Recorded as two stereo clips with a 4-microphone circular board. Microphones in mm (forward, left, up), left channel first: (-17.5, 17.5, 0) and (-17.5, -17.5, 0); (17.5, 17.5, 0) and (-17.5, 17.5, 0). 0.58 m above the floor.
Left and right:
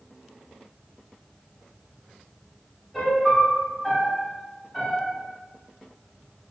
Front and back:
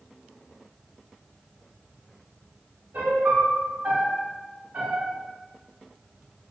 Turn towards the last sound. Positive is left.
turn(degrees=160)